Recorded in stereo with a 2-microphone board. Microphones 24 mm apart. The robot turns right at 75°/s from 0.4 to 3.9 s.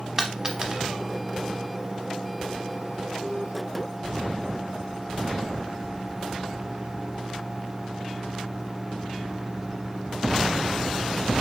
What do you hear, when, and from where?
0.2 s a dropped coin: 25° right (ahead or behind), 0.8 m; by 0.9 s 55° right (ahead or behind), 0.8 m